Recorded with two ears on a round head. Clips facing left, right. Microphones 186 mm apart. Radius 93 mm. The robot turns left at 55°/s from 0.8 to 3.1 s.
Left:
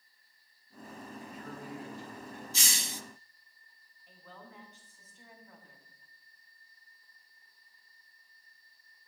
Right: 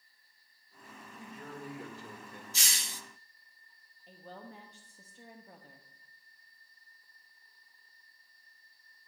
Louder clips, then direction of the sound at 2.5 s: Left 5 dB; 70° left (ahead or behind).